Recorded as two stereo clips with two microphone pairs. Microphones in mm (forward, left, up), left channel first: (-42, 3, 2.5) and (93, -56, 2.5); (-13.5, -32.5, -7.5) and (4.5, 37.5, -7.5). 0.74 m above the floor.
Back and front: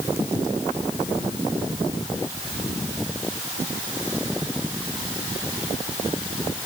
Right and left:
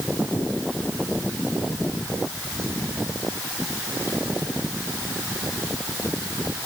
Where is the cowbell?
No cowbell in this recording.